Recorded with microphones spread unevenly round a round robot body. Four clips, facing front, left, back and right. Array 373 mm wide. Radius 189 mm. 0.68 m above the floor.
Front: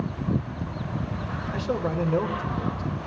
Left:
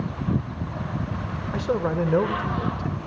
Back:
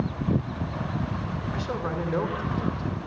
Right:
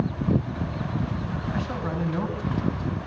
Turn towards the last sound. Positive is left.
turn(degrees=90)